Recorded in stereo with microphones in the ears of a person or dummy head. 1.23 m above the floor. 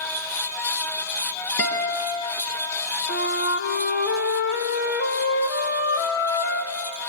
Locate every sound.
1.6 s a guitar: 70° left (ahead or behind), 3 m
3.1 s a flute: 55° left (ahead or behind), 1.6 m